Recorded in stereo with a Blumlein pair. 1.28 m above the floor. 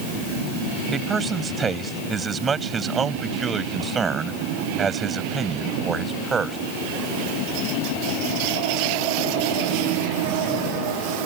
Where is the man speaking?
15° right.